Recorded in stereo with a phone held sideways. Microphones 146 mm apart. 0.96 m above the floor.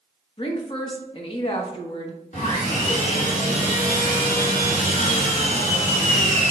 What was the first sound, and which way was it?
A woman speaking, 35° left (ahead or behind).